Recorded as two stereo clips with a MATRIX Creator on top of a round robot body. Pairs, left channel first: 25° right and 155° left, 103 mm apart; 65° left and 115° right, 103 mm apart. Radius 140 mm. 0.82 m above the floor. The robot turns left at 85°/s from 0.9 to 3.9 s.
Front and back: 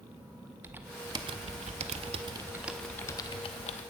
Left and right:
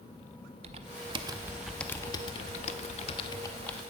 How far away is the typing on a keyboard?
About 0.5 m.